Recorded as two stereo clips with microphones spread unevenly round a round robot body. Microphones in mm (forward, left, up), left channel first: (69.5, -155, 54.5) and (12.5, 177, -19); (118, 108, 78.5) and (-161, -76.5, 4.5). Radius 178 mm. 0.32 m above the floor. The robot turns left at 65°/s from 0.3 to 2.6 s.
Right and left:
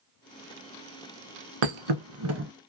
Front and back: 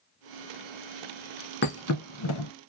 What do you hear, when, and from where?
1.6 s a thud: 90° left, 0.6 m; by 2.5 s 35° left, 0.6 m